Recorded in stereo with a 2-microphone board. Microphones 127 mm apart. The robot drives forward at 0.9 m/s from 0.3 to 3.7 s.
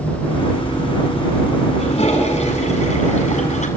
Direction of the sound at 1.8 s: 50° left (ahead or behind).